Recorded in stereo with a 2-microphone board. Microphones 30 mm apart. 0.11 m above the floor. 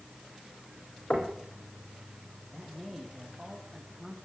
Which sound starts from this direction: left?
Knocking, at 1.1 s.